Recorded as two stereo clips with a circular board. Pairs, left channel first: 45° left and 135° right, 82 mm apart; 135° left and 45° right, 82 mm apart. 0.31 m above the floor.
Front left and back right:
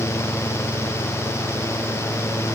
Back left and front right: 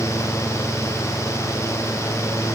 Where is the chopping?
No chopping in this recording.